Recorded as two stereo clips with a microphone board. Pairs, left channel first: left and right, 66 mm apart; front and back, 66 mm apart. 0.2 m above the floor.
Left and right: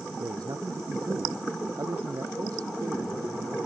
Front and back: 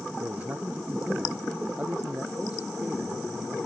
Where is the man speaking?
115° right; by 3.6 s 105° right.